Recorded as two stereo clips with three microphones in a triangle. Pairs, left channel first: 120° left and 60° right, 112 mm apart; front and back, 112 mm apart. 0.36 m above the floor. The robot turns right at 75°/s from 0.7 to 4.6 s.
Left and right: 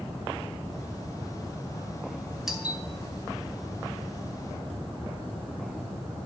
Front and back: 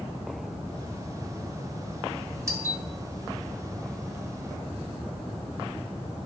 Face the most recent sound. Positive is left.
turn(degrees=15)